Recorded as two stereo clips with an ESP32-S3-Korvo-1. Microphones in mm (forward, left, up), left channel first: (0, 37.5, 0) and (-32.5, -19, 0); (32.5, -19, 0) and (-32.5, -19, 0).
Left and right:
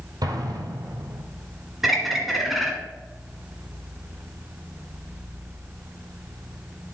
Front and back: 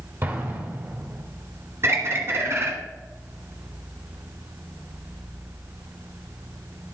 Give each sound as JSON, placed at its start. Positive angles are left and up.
{"t": 0.2, "sound": "an explosion", "azimuth_deg": -125, "distance_m": 1.9}
{"t": 1.8, "sound": "a bird", "azimuth_deg": 155, "distance_m": 1.3}